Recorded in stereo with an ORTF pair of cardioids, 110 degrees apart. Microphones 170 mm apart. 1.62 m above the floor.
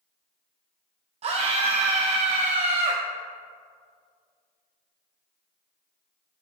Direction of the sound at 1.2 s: 40° right.